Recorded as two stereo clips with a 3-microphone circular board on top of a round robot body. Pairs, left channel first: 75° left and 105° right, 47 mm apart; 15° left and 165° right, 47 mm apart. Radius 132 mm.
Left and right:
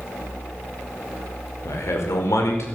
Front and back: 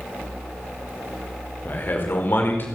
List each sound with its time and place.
1.6 s a man speaking: 60° left, 5 m